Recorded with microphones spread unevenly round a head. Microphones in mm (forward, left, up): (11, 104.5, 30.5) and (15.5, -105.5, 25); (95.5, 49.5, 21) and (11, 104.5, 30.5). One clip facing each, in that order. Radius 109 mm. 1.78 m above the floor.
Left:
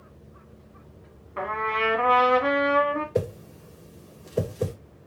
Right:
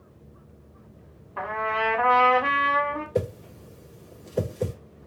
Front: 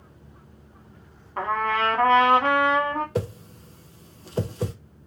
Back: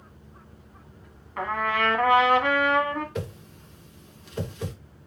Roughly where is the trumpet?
Ahead.